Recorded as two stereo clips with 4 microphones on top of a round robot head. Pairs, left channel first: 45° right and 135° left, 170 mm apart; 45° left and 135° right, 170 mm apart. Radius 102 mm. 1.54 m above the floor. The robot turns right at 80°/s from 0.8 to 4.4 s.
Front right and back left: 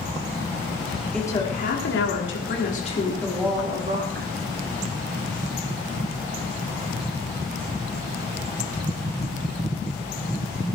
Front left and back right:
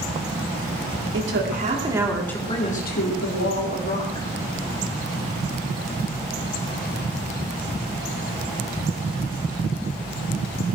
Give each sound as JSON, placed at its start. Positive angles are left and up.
{"t": 1.1, "sound": "a woman speaking", "azimuth_deg": -130, "distance_m": 4.5}